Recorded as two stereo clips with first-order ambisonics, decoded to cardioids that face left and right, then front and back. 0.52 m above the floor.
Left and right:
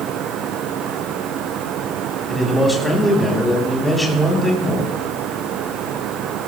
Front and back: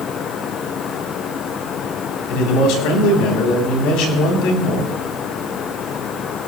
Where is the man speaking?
5° left, 4 m.